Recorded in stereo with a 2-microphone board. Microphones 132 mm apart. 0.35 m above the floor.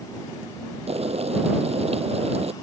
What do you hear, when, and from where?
0.9 s boiling: 50° right (ahead or behind)